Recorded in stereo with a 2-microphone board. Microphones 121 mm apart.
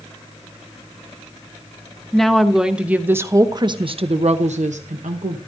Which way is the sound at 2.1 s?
5° left (ahead or behind).